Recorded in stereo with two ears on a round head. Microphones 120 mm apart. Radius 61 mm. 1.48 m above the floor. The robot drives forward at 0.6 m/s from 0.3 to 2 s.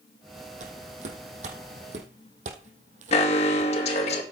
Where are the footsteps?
60° right (ahead or behind), 3.5 m.